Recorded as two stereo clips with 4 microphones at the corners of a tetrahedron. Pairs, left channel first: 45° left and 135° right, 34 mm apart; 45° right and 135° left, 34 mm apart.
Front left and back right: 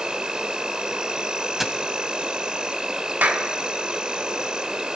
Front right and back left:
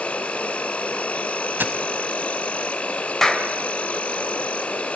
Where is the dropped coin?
140° left, 1.2 m.